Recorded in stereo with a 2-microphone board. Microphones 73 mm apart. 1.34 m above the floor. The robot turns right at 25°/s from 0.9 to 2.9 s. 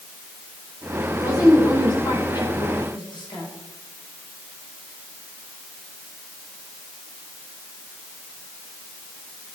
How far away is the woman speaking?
About 4.5 m.